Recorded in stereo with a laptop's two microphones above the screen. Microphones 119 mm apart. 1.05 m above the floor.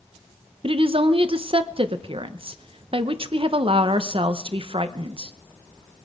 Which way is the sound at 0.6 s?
50° right (ahead or behind).